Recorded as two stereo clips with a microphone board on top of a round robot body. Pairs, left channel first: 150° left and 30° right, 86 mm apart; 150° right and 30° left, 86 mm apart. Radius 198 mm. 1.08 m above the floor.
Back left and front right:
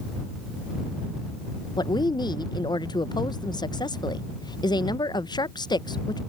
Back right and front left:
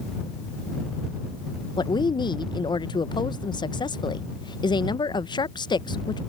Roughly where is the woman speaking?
Behind.